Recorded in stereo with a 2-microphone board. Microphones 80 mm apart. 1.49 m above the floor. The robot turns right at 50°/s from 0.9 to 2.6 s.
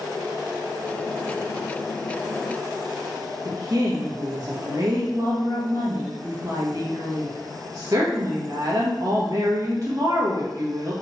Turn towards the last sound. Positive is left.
turn(degrees=-45)  # may be behind; listen again after turning